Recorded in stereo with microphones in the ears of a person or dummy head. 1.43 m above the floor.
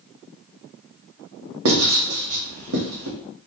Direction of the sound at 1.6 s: 80° right.